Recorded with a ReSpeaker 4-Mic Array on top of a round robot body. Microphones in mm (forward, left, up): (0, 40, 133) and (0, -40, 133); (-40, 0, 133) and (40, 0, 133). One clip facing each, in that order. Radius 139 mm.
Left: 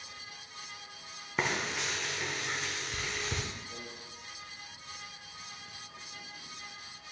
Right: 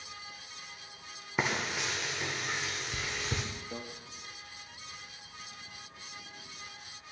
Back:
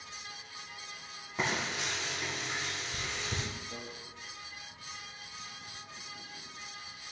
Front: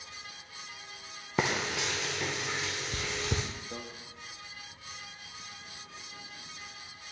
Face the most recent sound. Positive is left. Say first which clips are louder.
# right 5 dB, front 3 dB
turn(degrees=-55)